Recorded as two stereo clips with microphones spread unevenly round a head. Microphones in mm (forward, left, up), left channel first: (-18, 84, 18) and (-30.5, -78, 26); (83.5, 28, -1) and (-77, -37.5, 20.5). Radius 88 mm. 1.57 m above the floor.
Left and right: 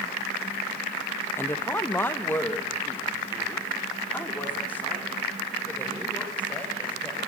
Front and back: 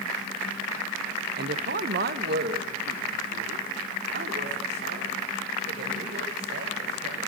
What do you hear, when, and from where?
1.4 s a woman speaking: 165° left, 1.1 m